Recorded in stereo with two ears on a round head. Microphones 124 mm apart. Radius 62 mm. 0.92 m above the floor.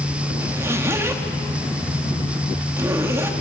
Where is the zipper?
20° right (ahead or behind), 2.0 m.